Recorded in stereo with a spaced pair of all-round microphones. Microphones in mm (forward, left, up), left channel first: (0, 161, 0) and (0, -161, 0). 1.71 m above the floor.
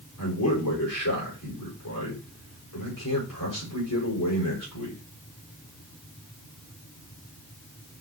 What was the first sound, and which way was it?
A man speaking, 80° left.